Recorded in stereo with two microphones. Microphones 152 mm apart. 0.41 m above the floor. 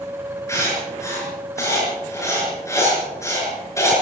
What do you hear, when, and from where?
0.5 s writing: 20° left (ahead or behind), 6.5 m